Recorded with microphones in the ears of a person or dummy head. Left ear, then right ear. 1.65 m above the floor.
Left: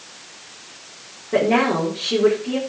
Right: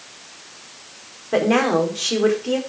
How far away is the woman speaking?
About 4.5 m.